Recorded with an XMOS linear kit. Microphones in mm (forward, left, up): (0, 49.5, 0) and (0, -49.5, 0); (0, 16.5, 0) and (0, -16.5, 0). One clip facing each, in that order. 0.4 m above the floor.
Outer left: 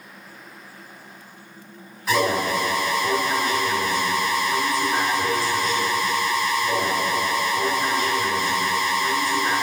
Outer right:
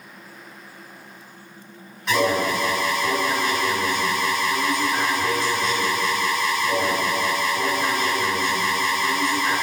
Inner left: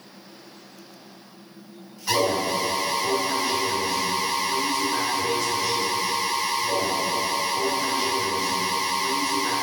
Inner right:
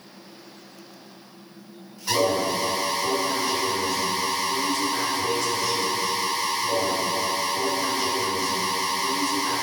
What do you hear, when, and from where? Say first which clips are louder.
2.1 s an alarm: outer right 1 dB, even; centre (ahead or behind), 2 m